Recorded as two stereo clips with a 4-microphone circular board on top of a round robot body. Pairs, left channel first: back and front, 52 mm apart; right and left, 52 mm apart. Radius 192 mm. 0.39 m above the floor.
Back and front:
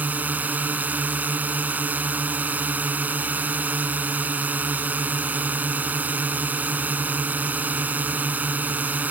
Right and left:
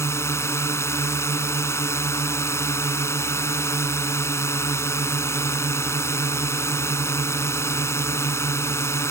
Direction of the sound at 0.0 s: 60° right.